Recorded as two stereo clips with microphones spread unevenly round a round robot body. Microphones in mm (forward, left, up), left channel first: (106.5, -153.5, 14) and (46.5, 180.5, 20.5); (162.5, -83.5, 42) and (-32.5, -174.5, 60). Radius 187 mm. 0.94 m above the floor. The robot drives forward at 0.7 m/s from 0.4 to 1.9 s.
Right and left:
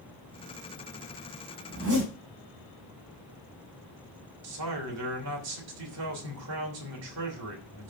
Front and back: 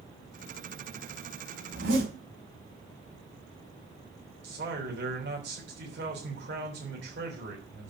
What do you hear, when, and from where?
1.7 s a zipper: 160° left, 5 m
4.4 s a man speaking: 150° left, 3 m